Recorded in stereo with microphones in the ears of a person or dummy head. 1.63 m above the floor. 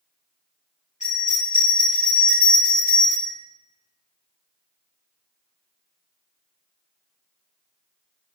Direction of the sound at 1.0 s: 35° left (ahead or behind).